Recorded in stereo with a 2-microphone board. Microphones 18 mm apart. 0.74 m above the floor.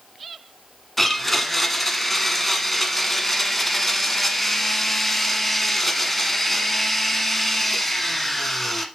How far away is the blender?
About 1.3 m.